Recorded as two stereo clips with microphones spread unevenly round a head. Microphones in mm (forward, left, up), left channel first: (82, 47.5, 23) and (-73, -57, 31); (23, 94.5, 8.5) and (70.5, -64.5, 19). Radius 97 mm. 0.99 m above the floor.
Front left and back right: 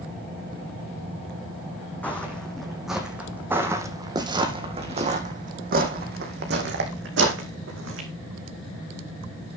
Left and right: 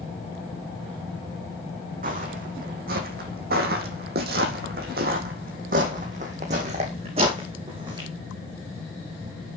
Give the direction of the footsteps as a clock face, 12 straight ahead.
2 o'clock.